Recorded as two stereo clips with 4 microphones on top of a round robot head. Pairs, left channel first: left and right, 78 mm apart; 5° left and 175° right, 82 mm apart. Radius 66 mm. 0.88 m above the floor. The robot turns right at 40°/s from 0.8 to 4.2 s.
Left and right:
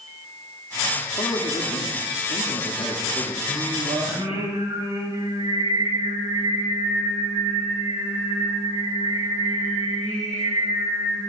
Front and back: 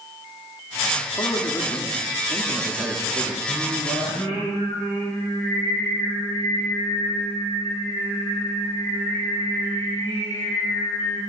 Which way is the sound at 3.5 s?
90° right.